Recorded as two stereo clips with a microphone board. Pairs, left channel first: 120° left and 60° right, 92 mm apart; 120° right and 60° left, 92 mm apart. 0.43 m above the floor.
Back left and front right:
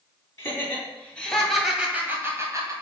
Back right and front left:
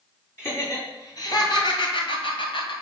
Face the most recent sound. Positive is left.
turn(degrees=-110)